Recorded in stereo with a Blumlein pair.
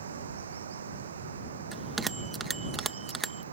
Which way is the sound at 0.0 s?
65° right.